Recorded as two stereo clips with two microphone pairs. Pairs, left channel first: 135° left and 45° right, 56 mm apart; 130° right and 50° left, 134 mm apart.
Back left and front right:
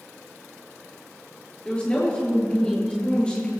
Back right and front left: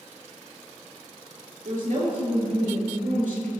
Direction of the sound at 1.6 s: 65° left.